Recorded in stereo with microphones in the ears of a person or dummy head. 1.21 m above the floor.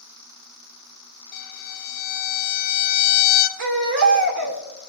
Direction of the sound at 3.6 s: 70° right (ahead or behind).